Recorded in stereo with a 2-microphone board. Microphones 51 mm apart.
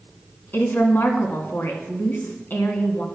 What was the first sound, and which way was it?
A woman speaking, 45° left (ahead or behind).